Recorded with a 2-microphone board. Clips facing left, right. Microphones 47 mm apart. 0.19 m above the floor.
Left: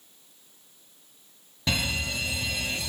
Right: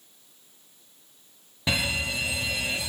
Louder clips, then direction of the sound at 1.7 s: Right 2 dB; 15° right (ahead or behind).